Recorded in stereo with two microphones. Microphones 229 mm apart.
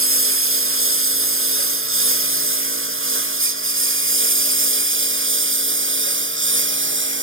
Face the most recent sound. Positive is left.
turn(degrees=-65)  # may be behind; listen again after turning